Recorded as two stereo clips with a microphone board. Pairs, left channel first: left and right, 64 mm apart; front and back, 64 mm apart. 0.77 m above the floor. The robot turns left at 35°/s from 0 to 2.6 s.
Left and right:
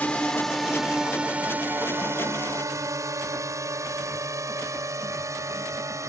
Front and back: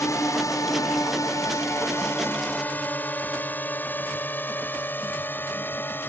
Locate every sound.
0.0 s a drone: 25° left; by 6.1 s 55° right